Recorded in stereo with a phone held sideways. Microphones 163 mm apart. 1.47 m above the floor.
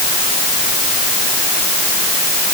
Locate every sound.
Only background noise.